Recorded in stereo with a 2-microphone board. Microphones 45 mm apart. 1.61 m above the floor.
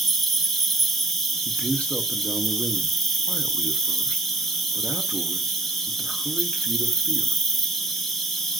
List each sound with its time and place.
0.0 s an insect: 5° left (ahead or behind), 0.8 m
1.4 s a man speaking: 30° left (ahead or behind), 0.7 m